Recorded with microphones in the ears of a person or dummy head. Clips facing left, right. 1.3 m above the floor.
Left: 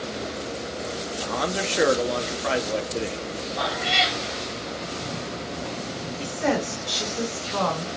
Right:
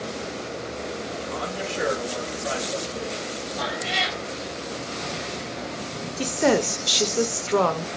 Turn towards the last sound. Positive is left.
turn(degrees=-50)  # may be behind; listen again after turning